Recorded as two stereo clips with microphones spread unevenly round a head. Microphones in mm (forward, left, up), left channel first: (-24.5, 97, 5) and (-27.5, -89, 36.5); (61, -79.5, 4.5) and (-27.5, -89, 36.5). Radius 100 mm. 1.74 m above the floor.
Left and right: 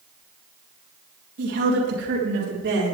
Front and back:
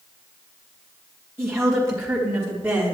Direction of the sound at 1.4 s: 115° right.